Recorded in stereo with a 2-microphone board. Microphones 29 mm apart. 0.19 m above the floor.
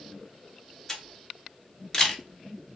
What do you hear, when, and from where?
0.9 s a camera shutter: 15° left (ahead or behind), 0.9 m